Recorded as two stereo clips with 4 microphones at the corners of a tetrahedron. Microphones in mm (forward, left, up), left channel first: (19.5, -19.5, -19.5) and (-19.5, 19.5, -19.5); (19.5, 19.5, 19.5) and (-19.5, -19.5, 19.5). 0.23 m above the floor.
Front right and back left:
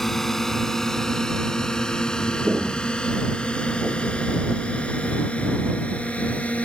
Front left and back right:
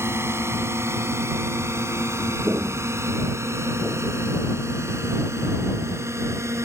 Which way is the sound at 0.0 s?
130° right.